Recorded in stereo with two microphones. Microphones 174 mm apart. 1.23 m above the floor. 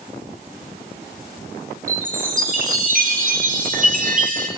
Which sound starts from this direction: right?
A chime, at 1.9 s.